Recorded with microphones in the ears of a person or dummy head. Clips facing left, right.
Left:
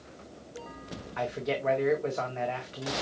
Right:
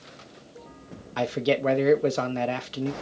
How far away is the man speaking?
About 0.5 m.